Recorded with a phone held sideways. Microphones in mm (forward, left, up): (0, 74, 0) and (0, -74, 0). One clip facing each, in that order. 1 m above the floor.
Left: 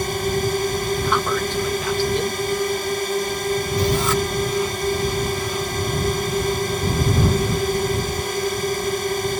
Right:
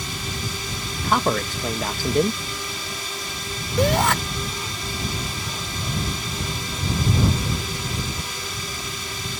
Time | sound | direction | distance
0.0 | a drone | 55° left (ahead or behind) | ?
1.0 | a man speaking | 45° right (ahead or behind) | ?
3.8 | a shout | 70° right (ahead or behind) | ?